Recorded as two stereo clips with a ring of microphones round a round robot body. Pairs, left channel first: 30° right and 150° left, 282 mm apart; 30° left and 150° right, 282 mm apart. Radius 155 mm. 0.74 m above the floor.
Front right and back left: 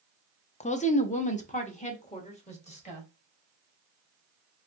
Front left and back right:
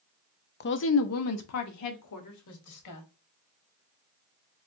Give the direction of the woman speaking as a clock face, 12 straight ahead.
11 o'clock.